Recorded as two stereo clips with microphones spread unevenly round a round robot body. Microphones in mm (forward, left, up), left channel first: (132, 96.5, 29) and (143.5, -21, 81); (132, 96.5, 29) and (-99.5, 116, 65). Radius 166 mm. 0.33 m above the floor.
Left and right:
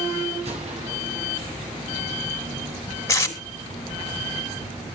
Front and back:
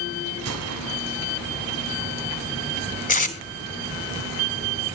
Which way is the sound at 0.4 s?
150° right.